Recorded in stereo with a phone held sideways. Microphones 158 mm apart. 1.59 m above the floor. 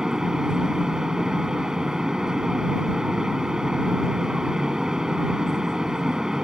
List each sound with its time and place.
0.0 s a fan: 5° right (ahead or behind)